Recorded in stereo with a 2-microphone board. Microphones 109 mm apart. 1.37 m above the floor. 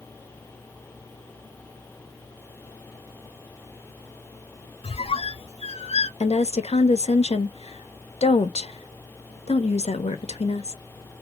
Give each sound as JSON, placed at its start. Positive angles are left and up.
{"t": 4.8, "sound": "a squeak", "side_deg": 65, "distance_m": 0.5}
{"t": 6.2, "sound": "a woman speaking", "side_deg": 70, "distance_m": 0.8}